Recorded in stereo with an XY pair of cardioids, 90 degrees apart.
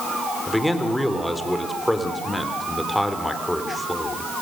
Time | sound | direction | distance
0.5 | a man speaking | 5° left | 4.5 m